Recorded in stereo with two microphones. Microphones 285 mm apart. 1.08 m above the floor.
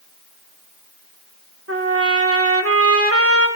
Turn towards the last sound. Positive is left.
turn(degrees=-55)  # may be behind; listen again after turning